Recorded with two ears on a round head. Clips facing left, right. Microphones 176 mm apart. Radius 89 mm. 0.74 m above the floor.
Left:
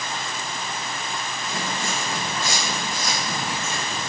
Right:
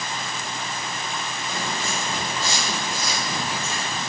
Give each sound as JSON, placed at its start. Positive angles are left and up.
{"t": 1.4, "sound": "footsteps", "side_deg": 40, "distance_m": 2.0}